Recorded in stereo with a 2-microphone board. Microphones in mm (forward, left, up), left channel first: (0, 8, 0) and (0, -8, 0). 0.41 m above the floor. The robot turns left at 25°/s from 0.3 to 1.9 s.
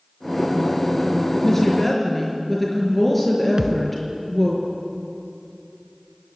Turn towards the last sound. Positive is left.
turn(degrees=-45)  # may be behind; listen again after turning